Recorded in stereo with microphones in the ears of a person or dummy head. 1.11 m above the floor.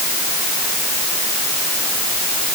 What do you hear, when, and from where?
Only background noise.